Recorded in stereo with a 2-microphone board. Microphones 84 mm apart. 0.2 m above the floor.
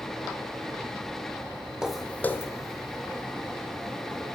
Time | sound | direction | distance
1.8 | footsteps | 10° right (ahead or behind) | 0.5 m